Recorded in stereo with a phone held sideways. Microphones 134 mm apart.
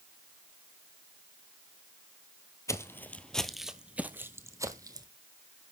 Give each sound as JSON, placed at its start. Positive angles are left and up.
{"t": 2.7, "sound": "footsteps", "side_deg": 20, "distance_m": 1.3}